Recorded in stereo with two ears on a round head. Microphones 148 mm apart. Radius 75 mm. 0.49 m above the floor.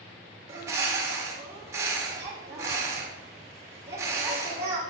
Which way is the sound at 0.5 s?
15° right (ahead or behind).